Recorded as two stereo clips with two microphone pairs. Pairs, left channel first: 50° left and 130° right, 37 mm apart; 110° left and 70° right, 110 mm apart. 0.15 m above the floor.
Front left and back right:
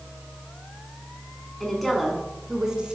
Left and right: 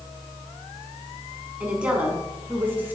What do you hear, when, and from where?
1.6 s a woman speaking: 10° right, 1.3 m; by 3.0 s 120° right, 1.4 m